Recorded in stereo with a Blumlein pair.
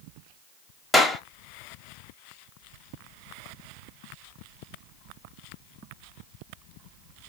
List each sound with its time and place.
0.9 s a clap: 5° left, 0.9 m